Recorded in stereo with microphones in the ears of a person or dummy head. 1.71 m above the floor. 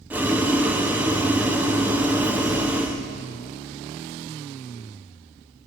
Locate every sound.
0.1 s boiling: 10° right (ahead or behind), 0.8 m